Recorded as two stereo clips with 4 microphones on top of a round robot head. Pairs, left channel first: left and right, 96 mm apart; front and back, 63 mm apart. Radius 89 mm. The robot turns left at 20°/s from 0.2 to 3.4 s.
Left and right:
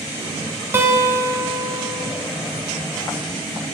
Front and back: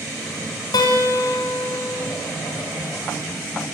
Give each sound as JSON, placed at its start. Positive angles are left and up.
{"t": 0.7, "sound": "a guitar", "azimuth_deg": -20, "distance_m": 1.4}